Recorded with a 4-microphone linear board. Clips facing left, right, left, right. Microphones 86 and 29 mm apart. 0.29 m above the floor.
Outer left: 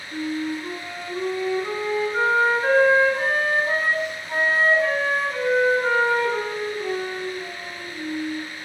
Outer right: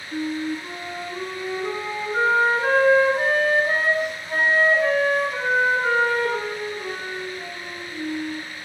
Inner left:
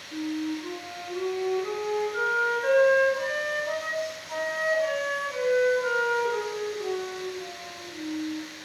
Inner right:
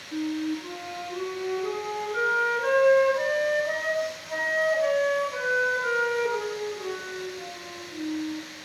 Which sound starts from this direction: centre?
A flute, at 0.1 s.